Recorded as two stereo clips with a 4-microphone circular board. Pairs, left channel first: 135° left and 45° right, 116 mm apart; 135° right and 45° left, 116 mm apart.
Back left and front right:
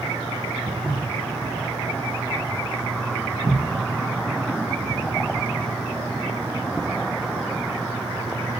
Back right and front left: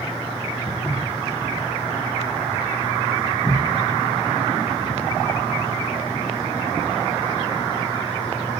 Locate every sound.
0.7 s footsteps: 105° right, 2.5 m; by 5.0 s 65° right, 4.5 m